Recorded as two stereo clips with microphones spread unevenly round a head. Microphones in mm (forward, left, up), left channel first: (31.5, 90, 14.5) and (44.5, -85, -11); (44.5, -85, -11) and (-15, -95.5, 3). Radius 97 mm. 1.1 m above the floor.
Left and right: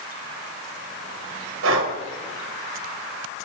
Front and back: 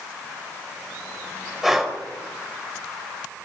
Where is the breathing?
85° right, 4 m.